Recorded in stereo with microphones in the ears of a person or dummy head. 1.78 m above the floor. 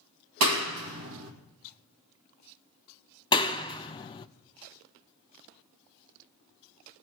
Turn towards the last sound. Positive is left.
turn(degrees=25)  # may be behind; listen again after turning